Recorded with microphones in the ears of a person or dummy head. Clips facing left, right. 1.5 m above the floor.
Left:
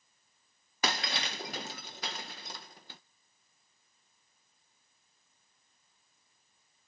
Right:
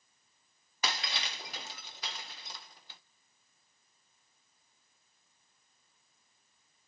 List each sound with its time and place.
0.8 s breaking glass: 30° left (ahead or behind), 0.6 m